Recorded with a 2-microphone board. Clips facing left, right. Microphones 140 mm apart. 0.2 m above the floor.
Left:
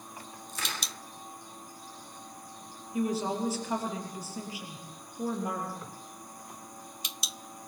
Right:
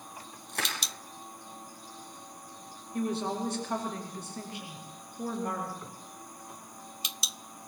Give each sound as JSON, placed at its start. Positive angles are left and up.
{"t": 0.5, "sound": "crushing", "side_deg": -65, "distance_m": 7.0}
{"t": 2.9, "sound": "a woman speaking", "side_deg": 5, "distance_m": 4.5}